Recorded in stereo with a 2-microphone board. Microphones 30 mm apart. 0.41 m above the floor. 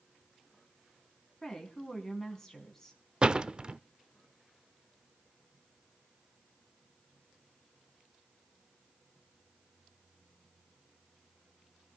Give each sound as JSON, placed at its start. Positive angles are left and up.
{"t": 1.4, "sound": "a woman speaking", "side_deg": 15, "distance_m": 4.0}
{"t": 3.2, "sound": "a door slam", "side_deg": -30, "distance_m": 0.5}